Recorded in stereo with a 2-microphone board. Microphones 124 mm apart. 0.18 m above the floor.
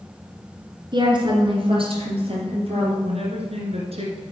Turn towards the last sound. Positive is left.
turn(degrees=-60)  # may be behind; listen again after turning